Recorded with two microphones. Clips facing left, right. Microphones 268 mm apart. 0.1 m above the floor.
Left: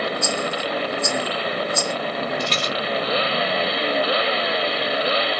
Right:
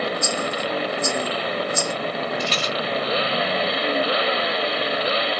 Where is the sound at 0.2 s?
15° right (ahead or behind), 0.6 m.